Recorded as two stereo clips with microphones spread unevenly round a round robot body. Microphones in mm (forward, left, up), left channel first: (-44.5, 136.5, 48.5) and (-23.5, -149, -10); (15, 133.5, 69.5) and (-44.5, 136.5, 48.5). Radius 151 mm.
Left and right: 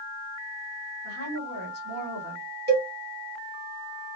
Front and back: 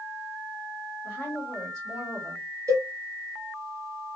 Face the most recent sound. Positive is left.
turn(degrees=-140)